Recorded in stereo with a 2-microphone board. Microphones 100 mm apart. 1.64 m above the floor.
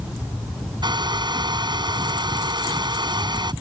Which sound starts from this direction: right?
A hair dryer, at 0.8 s.